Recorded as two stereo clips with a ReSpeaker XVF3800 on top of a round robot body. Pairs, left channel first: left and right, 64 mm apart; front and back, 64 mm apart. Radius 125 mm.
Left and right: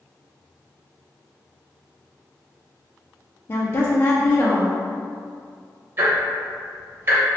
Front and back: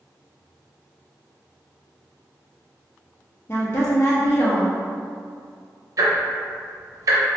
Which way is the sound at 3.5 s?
40° left.